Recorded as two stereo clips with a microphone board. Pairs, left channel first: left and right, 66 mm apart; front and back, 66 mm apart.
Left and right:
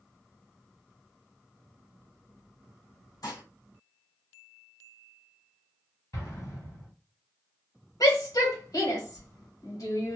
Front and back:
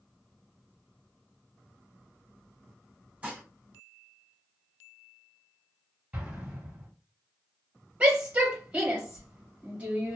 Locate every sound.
3.2 s dishes clattering: 115° left, 1.7 m
6.1 s an explosion: 115° left, 1.7 m
8.0 s a shout: 115° left, 1.5 m